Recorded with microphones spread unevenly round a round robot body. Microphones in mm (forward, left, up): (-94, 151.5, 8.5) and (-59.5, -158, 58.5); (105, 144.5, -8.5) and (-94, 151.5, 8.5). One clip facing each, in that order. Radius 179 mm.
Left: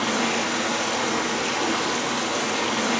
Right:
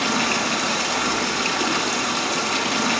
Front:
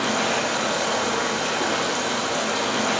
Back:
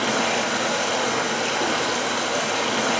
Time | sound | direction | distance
0.0 | running water | 80° right | 6 m